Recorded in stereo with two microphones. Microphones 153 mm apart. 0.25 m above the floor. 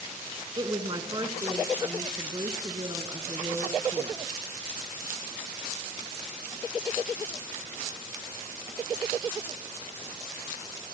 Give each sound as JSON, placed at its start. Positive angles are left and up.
{"t": 0.6, "sound": "a woman speaking", "side_deg": -30, "distance_m": 2.5}